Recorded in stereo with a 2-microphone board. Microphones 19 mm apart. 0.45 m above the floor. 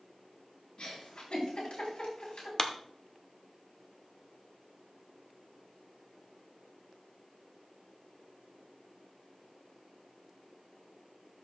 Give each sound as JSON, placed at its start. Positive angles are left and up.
{"t": 0.8, "sound": "a giggle", "side_deg": 70, "distance_m": 4.0}
{"t": 2.6, "sound": "a clap", "side_deg": 35, "distance_m": 0.8}